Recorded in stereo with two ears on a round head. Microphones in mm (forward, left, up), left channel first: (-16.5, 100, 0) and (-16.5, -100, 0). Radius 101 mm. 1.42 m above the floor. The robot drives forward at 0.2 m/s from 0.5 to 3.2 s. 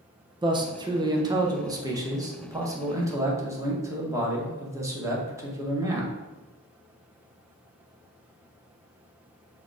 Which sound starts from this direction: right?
A man speaking, at 0.4 s.